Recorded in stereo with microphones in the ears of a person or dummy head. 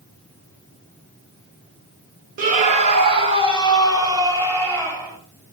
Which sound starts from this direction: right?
A scream, at 2.4 s.